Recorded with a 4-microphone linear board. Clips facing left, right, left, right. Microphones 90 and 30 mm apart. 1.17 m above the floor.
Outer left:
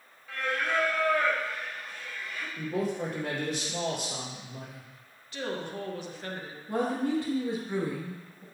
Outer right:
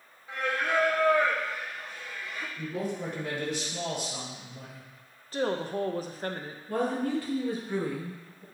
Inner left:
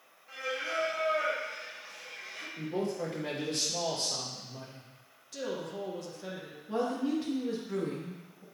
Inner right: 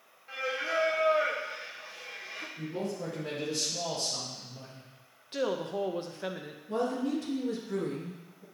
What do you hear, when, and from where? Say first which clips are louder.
0.3 s singing: outer right 1 dB, inner right 3 dB; 25° right (ahead or behind), 1.2 m
2.6 s a man speaking: outer left 3 dB, inner left 3 dB; 85° left, 3 m
5.3 s a woman speaking: outer right 5 dB, inner right 6 dB; 40° right (ahead or behind), 0.7 m
6.7 s a woman speaking: even, even; 25° left (ahead or behind), 2 m